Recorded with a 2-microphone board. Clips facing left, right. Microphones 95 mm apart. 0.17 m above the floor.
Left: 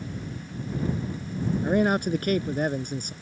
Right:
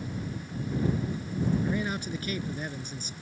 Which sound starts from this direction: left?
A man speaking, at 1.6 s.